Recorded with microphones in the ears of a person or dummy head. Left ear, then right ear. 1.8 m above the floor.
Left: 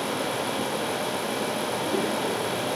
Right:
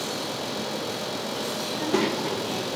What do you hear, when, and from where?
1.7 s a child speaking: 55° right (ahead or behind), 2.5 m